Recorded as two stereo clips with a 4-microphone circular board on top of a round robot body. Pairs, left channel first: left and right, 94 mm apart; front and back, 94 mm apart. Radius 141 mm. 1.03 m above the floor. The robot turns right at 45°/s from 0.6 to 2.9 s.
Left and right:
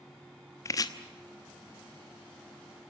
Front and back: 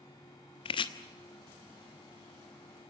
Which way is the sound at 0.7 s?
30° left.